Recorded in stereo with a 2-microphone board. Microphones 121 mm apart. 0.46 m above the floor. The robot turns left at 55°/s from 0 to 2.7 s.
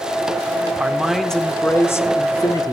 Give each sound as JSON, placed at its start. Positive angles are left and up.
{"t": 0.8, "sound": "a man speaking", "azimuth_deg": -160, "distance_m": 1.3}